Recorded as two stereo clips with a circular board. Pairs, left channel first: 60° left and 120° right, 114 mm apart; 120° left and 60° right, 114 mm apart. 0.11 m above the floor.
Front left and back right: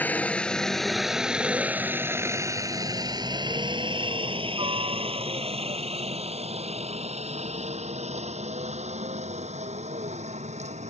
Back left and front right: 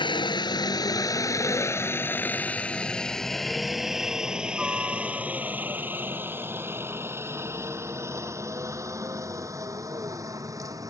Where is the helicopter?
130° left; by 10.9 s 120° right.